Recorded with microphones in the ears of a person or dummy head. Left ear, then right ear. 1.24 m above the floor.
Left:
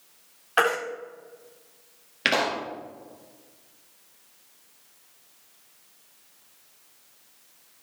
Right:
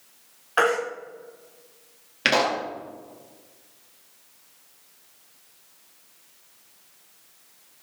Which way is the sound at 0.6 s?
10° left (ahead or behind).